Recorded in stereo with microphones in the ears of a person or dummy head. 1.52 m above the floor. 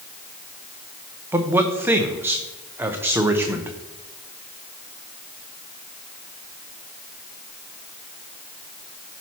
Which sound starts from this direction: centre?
A man speaking, at 1.3 s.